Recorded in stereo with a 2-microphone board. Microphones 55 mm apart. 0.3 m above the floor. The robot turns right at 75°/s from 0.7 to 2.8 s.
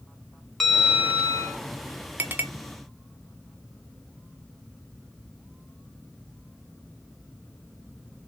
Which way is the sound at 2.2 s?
35° right (ahead or behind).